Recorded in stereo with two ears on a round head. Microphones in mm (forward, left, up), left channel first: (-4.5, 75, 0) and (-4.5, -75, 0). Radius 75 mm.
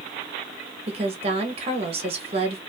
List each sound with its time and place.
0.9 s a woman speaking: 35° right (ahead or behind), 0.8 m